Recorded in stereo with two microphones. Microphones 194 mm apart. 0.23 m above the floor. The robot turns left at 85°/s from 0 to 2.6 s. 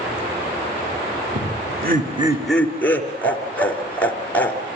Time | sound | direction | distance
1.4 | laughter | 70° right (ahead or behind) | 4.5 m